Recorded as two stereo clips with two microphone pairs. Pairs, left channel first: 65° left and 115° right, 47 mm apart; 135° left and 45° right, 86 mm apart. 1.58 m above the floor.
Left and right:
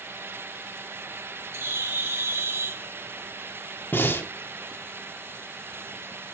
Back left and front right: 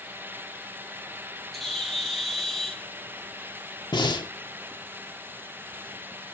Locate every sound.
1.5 s a bird: 140° right, 1.8 m
3.9 s breathing: 105° left, 1.2 m